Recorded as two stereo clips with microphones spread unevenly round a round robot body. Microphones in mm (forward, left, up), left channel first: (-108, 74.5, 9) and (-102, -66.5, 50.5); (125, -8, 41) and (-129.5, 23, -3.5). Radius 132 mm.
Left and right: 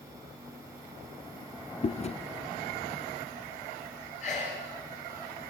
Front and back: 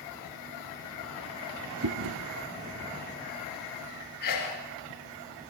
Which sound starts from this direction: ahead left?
A sneeze, at 4.2 s.